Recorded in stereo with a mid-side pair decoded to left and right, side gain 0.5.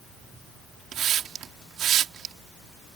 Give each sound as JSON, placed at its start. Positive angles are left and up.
{"t": 0.9, "sound": "a hiss", "azimuth_deg": -60}